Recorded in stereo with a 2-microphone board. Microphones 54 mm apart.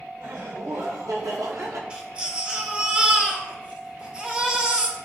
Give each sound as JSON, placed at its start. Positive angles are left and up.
{"t": 0.2, "sound": "laughter", "side_deg": -75, "distance_m": 2.5}
{"t": 1.9, "sound": "a baby crying", "side_deg": -20, "distance_m": 1.7}